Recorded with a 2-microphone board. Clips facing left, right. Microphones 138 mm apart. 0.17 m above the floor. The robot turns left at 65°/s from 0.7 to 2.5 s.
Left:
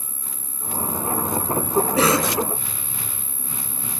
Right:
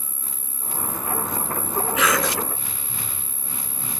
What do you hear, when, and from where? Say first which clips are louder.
0.0 s an insect: left 1 dB; 75° left, 0.9 m; by 4.0 s 45° right, 0.9 m
2.0 s a cough: left 1 dB; 40° left (ahead or behind), 2 m; by 2.4 s 20° left (ahead or behind), 2 m